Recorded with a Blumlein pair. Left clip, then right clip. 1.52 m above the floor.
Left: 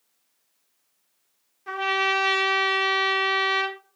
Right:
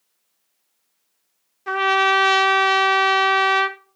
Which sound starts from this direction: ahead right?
A trumpet, at 1.7 s.